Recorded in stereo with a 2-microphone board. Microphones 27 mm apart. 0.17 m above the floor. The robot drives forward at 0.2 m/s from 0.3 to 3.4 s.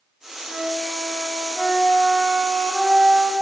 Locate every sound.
0.4 s a flute: 25° left (ahead or behind), 1.6 m; by 3.3 s 30° left (ahead or behind), 1.3 m